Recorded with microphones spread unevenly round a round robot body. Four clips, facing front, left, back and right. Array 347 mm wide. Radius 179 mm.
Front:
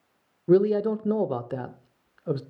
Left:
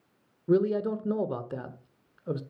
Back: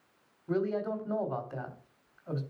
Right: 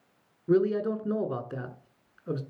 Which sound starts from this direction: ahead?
A man speaking, at 0.5 s.